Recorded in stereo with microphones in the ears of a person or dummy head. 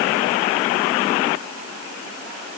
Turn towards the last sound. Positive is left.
No sound to turn to.